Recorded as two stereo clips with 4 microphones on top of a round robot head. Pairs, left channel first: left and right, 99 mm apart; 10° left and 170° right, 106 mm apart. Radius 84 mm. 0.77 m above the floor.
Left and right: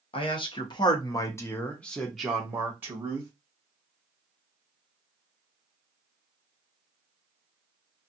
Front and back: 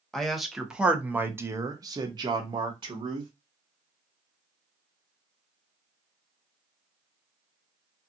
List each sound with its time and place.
0.1 s a man speaking: 95° left, 1.1 m; by 3.3 s 145° right, 1.1 m